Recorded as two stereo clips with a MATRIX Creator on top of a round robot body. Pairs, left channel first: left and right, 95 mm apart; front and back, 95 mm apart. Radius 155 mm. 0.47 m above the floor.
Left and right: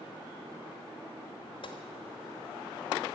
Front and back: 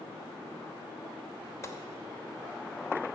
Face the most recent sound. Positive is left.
turn(degrees=60)